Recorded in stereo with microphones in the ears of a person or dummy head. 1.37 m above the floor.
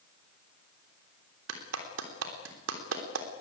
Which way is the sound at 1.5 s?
85° right.